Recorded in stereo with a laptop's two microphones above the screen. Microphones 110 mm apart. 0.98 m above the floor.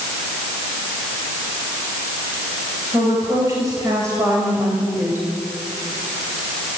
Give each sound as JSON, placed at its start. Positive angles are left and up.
{"t": 2.9, "sound": "a woman speaking", "side_deg": -35, "distance_m": 5.5}